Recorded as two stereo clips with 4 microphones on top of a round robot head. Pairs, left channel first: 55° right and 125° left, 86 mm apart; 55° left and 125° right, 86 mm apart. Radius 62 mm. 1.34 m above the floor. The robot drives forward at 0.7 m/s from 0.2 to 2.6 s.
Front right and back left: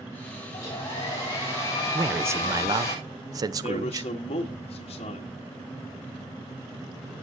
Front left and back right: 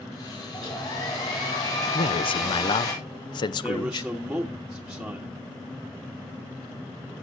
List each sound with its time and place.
0.5 s a hair dryer: 5° left, 8.5 m
1.9 s a man speaking: 55° left, 1.0 m; by 4.0 s 80° left, 0.9 m
3.6 s a man speaking: 45° right, 2.0 m